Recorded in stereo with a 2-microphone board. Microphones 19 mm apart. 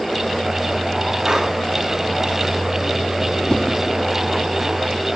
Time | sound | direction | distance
1.2 | breathing | 55° right (ahead or behind) | 3 m
3.5 | a whoosh | 40° left (ahead or behind) | 0.6 m